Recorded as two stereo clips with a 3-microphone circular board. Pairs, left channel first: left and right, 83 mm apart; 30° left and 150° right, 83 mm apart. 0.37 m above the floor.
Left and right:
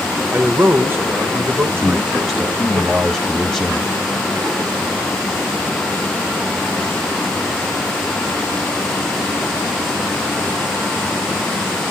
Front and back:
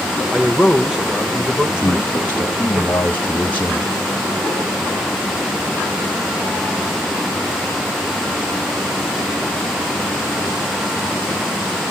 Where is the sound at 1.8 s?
5° right, 1.0 m.